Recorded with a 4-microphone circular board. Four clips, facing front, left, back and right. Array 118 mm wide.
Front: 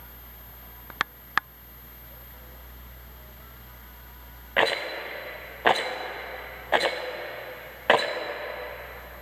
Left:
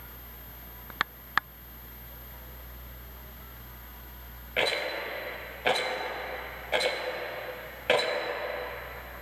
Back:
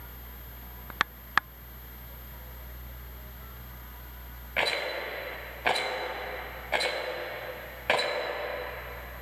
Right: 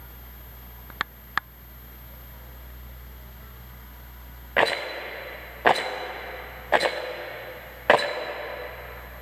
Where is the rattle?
60° right, 0.5 m.